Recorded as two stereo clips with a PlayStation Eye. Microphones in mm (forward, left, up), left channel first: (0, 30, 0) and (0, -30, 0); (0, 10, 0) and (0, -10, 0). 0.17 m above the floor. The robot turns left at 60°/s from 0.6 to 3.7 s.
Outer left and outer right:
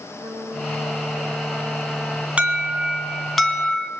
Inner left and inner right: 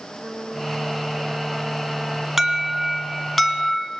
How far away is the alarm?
About 1.5 m.